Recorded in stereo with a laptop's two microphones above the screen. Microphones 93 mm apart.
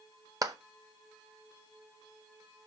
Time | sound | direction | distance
0.4 | a clap | 40° right (ahead or behind) | 0.7 m